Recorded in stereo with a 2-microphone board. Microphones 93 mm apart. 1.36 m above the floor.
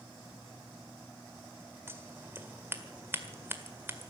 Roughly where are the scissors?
Right.